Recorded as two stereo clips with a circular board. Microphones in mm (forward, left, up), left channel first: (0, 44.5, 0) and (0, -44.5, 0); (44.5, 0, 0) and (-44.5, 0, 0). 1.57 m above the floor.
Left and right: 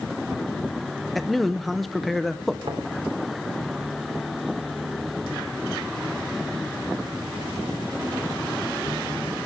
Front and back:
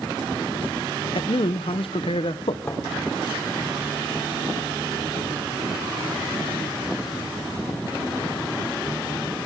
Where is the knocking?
75° right, 3 m.